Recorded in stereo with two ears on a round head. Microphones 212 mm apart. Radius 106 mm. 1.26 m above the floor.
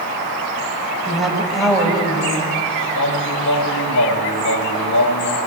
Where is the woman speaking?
Centre (ahead or behind), 5.5 m.